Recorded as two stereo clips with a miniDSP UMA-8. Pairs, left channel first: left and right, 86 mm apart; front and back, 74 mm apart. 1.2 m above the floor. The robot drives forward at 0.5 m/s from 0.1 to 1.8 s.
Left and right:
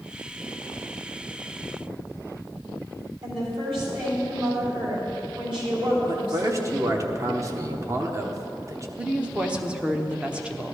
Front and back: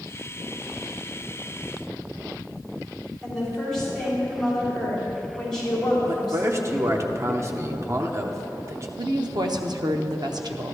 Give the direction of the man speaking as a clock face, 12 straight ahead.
5 o'clock.